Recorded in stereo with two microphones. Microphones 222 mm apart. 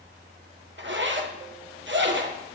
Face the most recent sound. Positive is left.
turn(degrees=-50)  # may be behind; listen again after turning